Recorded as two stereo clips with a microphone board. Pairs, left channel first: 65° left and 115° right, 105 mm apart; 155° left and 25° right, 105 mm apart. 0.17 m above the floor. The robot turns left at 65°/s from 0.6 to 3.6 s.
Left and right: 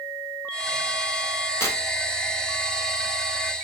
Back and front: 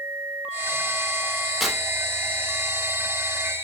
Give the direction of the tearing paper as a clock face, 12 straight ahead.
10 o'clock.